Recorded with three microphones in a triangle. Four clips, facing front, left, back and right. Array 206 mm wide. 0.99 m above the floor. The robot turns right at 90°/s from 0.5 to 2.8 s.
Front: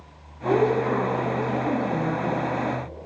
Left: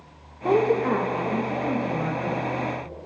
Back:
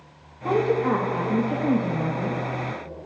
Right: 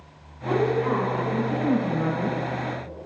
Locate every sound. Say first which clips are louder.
0.5 s a woman speaking: left 2 dB, front 1 dB; 95° left, 0.8 m; by 2.4 s 95° right, 0.8 m